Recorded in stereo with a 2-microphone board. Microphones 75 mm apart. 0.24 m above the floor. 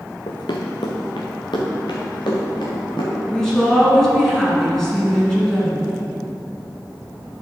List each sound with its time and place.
0.3 s running footsteps: 80° left, 1.1 m; by 3.1 s 85° left, 3 m
3.2 s a woman speaking: 5° left (ahead or behind), 3 m